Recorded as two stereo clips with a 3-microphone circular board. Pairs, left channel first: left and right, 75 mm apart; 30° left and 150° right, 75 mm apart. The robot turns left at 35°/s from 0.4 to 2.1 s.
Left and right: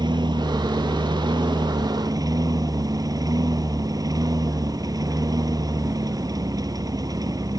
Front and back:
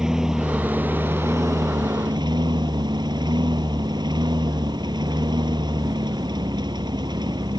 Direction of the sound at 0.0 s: 65° right.